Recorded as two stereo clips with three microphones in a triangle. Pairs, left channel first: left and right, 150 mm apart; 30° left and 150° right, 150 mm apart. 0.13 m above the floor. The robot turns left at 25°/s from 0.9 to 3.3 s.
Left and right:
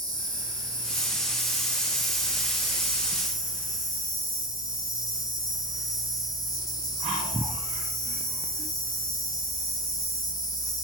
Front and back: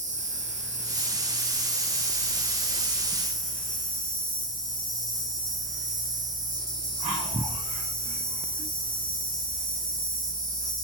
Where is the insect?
150° right, 3.5 m; by 10.8 s 150° left, 3.5 m.